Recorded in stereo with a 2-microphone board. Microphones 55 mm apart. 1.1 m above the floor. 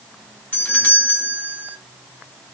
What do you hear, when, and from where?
0.5 s a doorbell: 30° left (ahead or behind), 1.5 m